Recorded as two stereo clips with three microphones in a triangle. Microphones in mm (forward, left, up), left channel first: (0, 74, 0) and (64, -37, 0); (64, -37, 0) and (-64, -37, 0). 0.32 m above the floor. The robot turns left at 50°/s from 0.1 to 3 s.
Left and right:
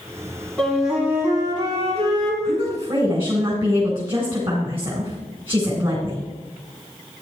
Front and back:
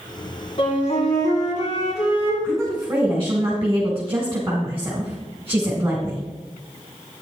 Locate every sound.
0.6 s a flute: 40° left, 3.5 m; by 2.3 s 45° right, 3.5 m
2.4 s a woman speaking: 80° right, 2.5 m; by 6.2 s 110° right, 2.5 m